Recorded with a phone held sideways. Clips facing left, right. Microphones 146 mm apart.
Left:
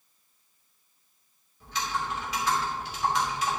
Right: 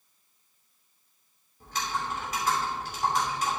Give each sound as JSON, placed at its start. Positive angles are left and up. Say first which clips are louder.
{"t": 1.6, "sound": "typing on a keyboard", "louder": "left 1 dB", "side_deg": -45, "distance_m": 2.5}